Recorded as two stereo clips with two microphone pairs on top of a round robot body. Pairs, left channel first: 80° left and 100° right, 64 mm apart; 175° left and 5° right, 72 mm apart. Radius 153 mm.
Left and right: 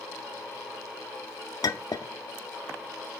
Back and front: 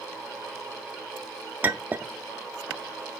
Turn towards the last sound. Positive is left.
turn(degrees=60)